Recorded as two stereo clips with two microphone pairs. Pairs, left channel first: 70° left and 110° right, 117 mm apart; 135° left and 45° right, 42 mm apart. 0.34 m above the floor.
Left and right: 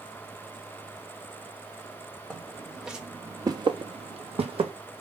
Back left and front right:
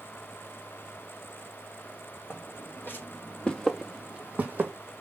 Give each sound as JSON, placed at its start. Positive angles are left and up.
{"t": 2.3, "sound": "footsteps", "azimuth_deg": 155, "distance_m": 1.1}